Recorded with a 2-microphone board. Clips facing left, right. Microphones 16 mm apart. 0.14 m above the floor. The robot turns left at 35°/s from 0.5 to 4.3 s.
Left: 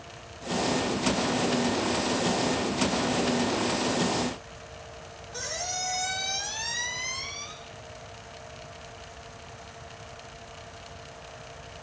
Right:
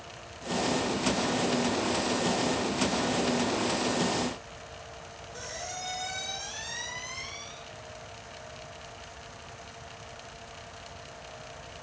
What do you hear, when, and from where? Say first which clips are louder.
5.3 s a squeak: left 6 dB; 75° left (ahead or behind), 5 m